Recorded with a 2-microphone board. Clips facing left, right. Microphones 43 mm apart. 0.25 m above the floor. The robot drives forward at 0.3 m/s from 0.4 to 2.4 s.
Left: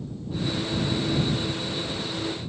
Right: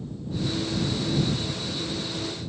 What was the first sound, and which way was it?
Only background noise.